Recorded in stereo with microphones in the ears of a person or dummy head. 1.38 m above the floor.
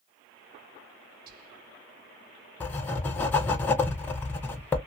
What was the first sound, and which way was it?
Whispering, 50° right (ahead or behind).